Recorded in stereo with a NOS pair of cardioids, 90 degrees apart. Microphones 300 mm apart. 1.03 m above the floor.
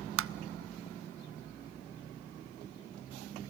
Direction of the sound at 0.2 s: 45° right.